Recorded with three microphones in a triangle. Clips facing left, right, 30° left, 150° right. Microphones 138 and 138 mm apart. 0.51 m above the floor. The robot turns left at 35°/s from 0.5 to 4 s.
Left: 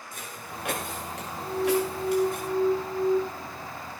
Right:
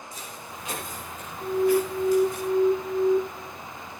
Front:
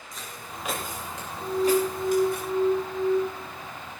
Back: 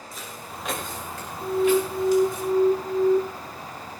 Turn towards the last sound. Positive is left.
turn(degrees=-160)